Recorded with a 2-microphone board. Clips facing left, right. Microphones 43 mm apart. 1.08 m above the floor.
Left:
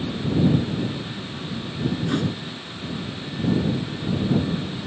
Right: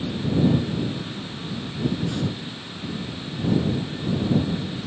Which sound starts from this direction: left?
A thud, at 2.1 s.